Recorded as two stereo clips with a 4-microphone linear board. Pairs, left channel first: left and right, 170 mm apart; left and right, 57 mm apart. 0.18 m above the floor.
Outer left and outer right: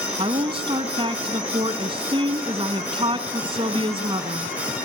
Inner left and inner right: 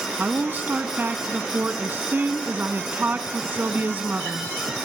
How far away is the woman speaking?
About 1.3 m.